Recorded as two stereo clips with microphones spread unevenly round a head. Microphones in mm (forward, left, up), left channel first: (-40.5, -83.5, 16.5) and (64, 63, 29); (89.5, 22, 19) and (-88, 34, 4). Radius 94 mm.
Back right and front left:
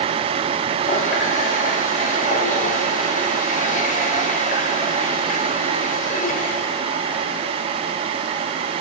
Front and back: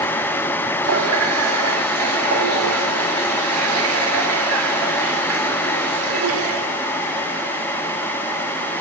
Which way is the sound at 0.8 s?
175° right.